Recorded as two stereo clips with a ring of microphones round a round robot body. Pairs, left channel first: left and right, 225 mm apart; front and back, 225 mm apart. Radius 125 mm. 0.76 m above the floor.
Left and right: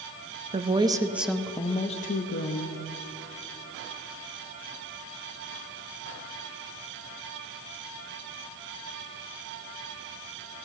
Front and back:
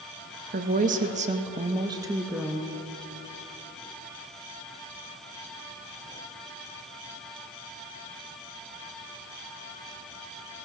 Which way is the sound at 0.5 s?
140° right.